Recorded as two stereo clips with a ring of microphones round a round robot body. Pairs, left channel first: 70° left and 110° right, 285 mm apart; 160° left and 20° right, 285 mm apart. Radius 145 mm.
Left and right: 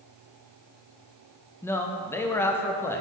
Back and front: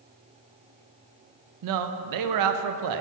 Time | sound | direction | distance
1.6 | a man speaking | 15° right | 0.6 m